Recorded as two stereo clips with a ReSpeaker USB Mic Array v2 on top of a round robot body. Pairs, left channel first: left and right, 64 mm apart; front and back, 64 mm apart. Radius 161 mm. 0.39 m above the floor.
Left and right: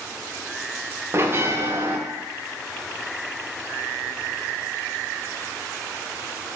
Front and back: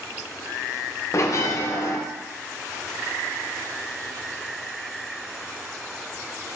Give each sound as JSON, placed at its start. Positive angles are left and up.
{"t": 1.1, "sound": "a bell", "azimuth_deg": -40, "distance_m": 0.6}